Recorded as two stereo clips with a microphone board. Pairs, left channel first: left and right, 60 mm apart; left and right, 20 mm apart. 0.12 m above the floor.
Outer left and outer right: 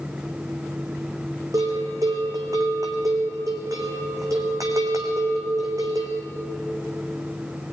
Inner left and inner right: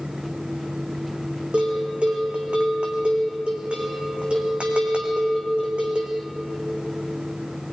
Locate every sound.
1.5 s a bell: 80° right, 4 m